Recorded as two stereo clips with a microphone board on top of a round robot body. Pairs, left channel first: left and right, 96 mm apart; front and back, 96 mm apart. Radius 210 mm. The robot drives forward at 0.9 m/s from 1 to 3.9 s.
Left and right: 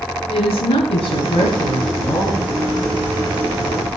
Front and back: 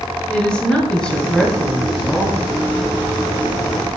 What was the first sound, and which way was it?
A woman speaking, 80° left.